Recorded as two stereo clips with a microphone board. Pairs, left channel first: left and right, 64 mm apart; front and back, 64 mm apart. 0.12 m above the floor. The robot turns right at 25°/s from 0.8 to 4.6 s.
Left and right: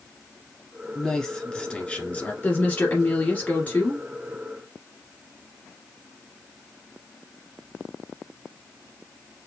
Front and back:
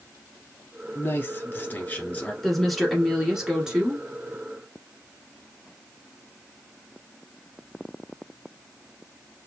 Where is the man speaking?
10° left, 1.2 m; by 2.3 s 45° left, 1.2 m.